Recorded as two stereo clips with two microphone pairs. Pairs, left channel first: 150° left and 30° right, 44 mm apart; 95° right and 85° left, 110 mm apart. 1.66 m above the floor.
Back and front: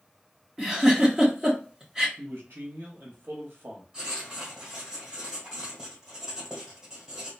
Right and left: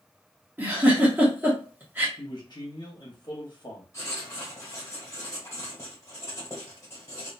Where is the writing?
90° right, 1.5 m.